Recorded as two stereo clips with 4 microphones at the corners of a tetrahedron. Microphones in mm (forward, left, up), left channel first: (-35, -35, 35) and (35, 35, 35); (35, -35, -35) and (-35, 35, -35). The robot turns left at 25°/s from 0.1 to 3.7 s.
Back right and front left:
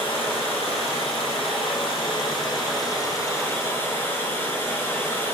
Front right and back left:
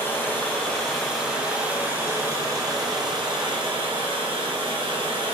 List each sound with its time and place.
0.0 s running water: 110° right, 1.2 m; by 5.3 s 160° left, 1.2 m